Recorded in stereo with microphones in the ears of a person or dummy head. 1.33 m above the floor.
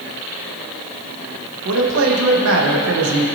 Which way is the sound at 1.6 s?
70° right (ahead or behind).